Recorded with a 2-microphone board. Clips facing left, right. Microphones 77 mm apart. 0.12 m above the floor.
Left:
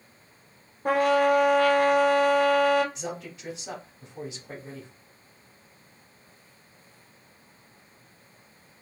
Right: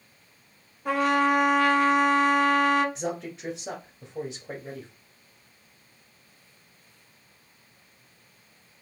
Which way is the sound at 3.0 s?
30° right (ahead or behind).